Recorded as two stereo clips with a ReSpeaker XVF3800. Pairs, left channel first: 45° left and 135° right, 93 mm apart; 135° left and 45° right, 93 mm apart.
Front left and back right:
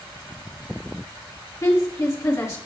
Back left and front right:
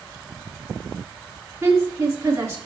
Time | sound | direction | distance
1.6 | a woman speaking | 5° left | 1.5 m